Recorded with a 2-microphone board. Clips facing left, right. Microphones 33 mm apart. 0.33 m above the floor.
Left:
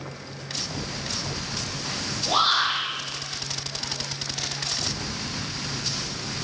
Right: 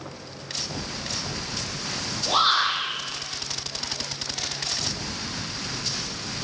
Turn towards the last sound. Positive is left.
turn(degrees=-10)  # may be behind; listen again after turning